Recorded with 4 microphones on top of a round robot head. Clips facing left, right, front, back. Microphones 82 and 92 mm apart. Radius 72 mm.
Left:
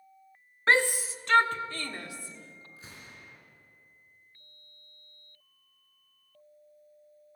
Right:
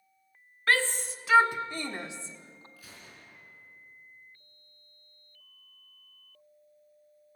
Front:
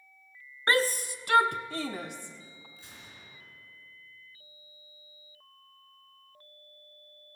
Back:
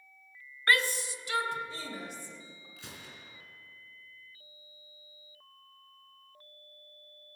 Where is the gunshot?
165° left, 3.5 m.